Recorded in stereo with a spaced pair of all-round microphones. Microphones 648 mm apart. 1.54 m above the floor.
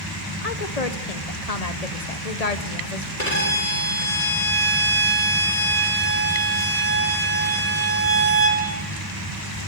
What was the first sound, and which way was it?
A woman speaking, 65° left (ahead or behind).